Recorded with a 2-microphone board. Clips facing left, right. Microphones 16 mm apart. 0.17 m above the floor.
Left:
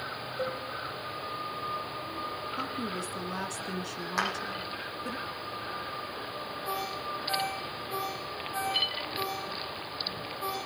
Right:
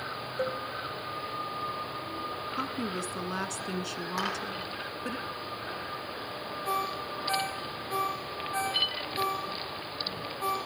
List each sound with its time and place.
0.4 s a cowbell: 30° right (ahead or behind), 3.5 m
2.6 s a woman speaking: 20° right (ahead or behind), 1.6 m
4.2 s a clap: 10° left (ahead or behind), 7 m
6.7 s a ringtone: 25° right (ahead or behind), 7.5 m